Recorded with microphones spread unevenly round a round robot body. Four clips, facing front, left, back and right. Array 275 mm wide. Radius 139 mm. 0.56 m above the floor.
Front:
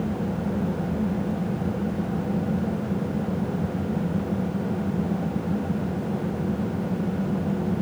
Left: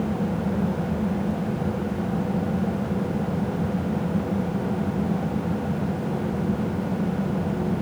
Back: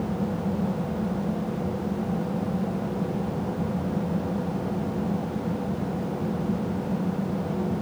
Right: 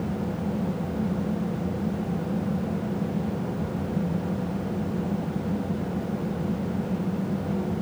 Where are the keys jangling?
I don't hear keys jangling.